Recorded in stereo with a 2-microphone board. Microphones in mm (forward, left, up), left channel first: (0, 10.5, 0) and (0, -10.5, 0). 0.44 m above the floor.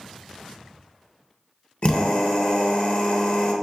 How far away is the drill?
About 0.8 m.